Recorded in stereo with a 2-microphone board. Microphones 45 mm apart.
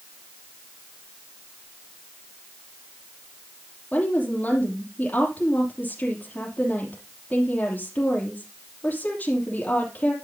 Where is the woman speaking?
30° left (ahead or behind), 3 m.